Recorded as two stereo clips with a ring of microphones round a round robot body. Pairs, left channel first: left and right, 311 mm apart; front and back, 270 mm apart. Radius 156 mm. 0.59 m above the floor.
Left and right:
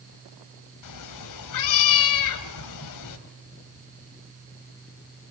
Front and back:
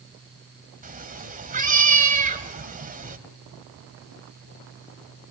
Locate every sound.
0.8 s a cat meowing: 120° left, 1.7 m